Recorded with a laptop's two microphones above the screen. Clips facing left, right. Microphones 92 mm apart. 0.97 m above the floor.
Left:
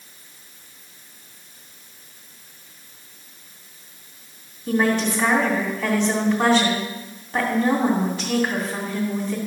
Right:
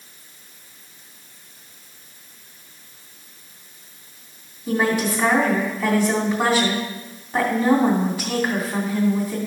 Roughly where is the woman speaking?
Centre.